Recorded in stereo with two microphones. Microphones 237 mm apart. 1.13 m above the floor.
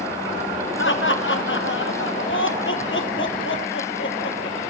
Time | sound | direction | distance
0.8 | laughter | 55° left (ahead or behind) | 0.8 m